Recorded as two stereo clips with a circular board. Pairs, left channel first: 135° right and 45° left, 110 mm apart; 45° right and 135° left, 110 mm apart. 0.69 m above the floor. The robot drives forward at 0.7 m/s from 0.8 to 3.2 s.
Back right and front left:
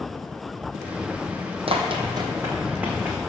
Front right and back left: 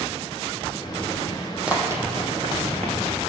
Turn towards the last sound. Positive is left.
turn(degrees=125)